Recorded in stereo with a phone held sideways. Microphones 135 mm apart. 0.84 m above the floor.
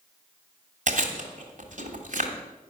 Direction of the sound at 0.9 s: 60° right (ahead or behind).